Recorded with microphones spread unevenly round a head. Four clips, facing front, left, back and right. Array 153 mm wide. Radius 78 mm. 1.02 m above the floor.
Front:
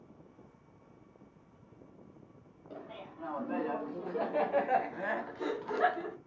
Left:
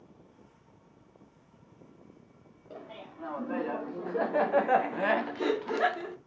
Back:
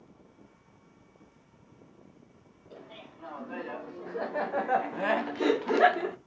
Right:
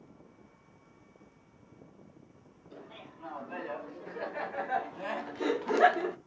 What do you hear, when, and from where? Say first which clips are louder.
2.7 s laughter: left 4 dB, front 2 dB; 70° left, 2 m; by 6.2 s 155° right, 1.0 m